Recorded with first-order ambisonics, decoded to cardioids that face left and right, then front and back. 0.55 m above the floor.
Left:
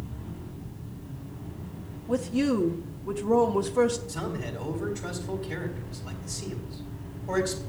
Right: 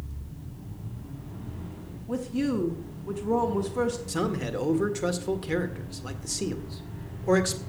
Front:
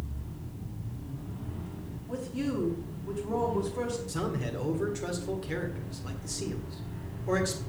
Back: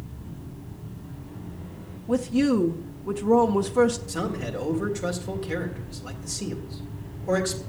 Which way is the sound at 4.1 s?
100° right.